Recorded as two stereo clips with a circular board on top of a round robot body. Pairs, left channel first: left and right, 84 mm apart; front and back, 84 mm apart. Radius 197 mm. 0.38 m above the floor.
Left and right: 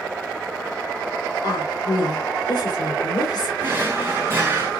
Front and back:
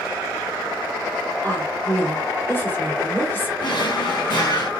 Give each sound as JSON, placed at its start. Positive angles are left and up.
{"t": 1.4, "sound": "a woman speaking", "azimuth_deg": 65, "distance_m": 1.9}
{"t": 3.6, "sound": "a drawer", "azimuth_deg": -30, "distance_m": 1.6}